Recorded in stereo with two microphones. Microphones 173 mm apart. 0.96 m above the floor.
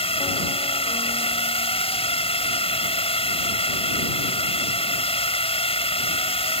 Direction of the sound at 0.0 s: 35° left (ahead or behind).